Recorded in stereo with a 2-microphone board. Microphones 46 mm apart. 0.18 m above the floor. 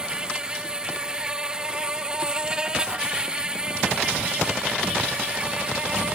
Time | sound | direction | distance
0.0 | an insect | 15° right (ahead or behind) | ?